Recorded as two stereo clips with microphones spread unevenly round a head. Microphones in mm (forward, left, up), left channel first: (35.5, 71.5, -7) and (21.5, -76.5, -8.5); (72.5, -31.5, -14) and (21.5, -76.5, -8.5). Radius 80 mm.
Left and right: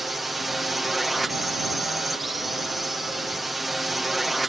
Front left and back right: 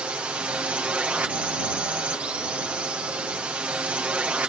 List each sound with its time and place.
0.0 s a drone: straight behind